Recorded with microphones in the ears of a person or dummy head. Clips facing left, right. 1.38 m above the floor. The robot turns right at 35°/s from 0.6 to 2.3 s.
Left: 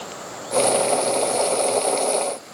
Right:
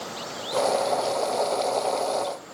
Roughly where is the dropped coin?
No dropped coin in this recording.